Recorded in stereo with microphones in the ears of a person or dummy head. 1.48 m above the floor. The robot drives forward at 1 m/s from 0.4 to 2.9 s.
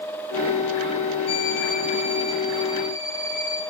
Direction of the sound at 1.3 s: 70° left (ahead or behind).